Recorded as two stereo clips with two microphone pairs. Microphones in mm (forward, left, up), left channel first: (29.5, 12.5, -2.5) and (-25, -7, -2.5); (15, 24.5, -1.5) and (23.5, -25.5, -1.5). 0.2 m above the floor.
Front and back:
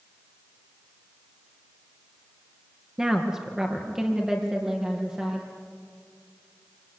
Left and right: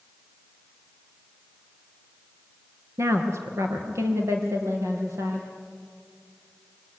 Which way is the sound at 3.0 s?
80° right.